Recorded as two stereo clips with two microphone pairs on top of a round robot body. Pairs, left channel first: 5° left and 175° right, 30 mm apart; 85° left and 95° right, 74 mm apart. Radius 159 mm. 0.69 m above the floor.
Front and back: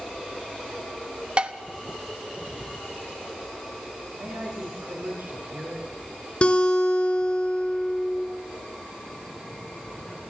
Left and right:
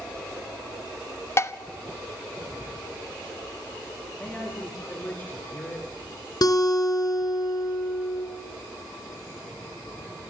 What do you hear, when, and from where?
1.4 s dishes clattering: 125° left, 0.8 m
4.1 s a man speaking: 150° left, 2.5 m
6.4 s a guitar: 60° left, 3 m